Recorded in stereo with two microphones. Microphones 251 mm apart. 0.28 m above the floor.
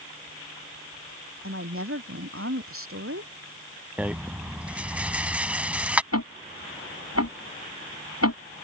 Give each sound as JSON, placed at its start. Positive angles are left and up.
{"t": 1.4, "sound": "a woman speaking", "side_deg": -55}
{"t": 4.0, "sound": "a rattle", "side_deg": -5}
{"t": 6.1, "sound": "ticking", "side_deg": 80}